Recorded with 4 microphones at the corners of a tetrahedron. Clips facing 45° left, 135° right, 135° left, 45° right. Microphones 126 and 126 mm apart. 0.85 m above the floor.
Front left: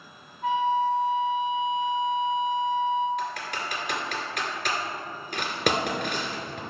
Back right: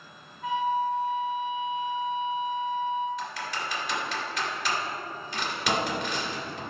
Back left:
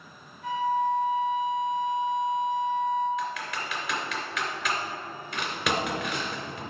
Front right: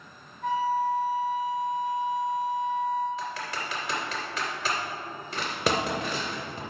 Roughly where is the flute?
Ahead.